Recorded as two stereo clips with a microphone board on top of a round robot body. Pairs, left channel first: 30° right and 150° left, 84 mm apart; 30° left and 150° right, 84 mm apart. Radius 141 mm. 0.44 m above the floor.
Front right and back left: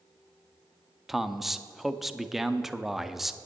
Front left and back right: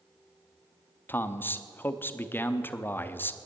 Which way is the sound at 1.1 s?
65° left.